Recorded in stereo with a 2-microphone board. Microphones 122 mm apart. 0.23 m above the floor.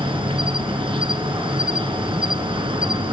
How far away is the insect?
About 1.4 m.